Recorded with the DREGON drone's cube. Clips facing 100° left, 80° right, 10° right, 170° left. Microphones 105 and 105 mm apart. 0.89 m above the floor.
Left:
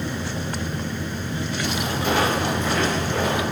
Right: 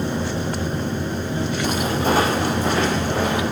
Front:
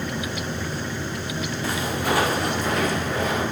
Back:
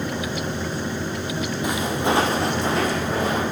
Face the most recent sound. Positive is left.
turn(degrees=-135)